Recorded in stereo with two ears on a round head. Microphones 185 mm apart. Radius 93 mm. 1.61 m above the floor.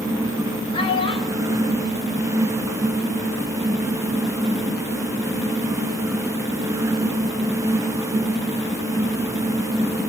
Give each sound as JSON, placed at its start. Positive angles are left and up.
{"t": 0.7, "sound": "a child speaking", "side_deg": 25, "distance_m": 6.5}